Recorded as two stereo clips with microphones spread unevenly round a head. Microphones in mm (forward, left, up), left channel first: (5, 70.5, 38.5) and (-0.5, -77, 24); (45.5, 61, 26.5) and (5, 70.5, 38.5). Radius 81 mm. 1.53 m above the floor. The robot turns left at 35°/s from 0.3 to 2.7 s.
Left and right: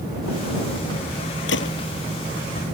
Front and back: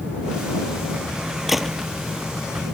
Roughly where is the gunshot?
Left.